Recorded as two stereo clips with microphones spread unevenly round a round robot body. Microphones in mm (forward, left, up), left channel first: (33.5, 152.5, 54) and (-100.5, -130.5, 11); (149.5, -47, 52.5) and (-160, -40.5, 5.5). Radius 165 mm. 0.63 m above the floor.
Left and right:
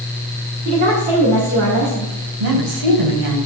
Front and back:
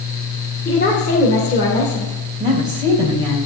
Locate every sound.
0.7 s a woman speaking: 70° right, 2.5 m
2.4 s a woman speaking: 105° right, 3 m